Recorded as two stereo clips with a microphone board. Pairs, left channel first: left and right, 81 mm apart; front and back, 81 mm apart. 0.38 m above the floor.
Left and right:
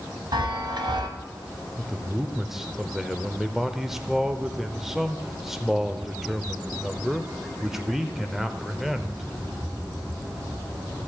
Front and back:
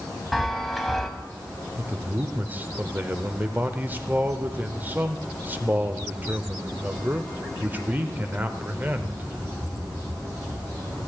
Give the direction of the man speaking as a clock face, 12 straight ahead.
6 o'clock.